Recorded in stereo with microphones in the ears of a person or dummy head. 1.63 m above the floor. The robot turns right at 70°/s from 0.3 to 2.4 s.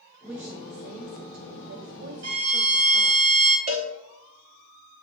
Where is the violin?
80° right, 2 m; by 3.6 s 70° right (ahead or behind), 2 m.